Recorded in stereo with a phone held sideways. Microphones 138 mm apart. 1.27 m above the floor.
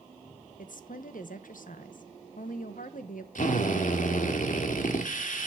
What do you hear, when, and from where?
0.6 s a woman speaking: 75° left (ahead or behind), 1.0 m
3.4 s a drill: 70° left (ahead or behind), 1.7 m